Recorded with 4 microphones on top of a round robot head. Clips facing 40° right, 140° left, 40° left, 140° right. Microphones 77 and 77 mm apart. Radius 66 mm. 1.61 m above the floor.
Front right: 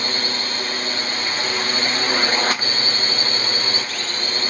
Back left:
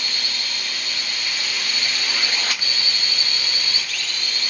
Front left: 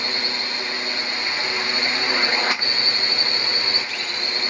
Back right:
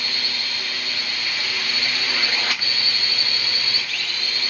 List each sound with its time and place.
0.0 s a drone: 10° right